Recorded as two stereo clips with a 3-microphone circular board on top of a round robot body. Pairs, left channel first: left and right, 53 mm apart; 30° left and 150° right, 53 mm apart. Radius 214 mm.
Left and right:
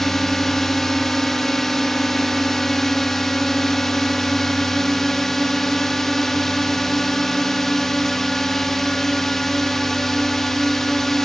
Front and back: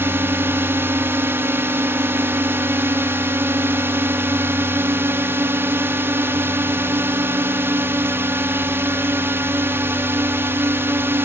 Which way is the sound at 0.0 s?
175° left.